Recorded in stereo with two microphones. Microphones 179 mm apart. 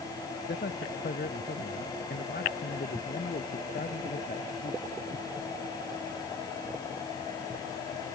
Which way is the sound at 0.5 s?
70° left (ahead or behind).